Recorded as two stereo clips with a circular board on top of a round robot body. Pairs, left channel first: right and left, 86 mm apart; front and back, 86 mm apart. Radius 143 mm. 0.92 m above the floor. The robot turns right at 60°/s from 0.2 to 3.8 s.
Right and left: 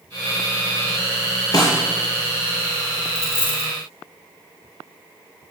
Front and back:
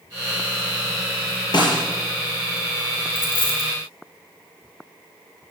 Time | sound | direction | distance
1.5 | a snare drum | 40° right | 3.5 m
3.1 | a dropped coin | 40° right | 1.5 m